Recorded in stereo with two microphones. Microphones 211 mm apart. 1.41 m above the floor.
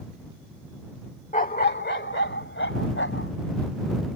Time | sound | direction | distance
1.3 | a dog barking | 35° left (ahead or behind) | ?